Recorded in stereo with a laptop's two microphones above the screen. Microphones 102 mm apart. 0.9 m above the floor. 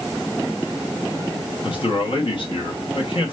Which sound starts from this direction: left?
A man speaking, at 1.6 s.